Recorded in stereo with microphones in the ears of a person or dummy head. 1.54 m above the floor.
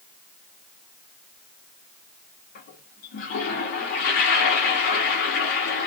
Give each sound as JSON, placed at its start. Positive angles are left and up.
{"t": 2.5, "sound": "a toilet flushing", "side_deg": 50, "distance_m": 1.3}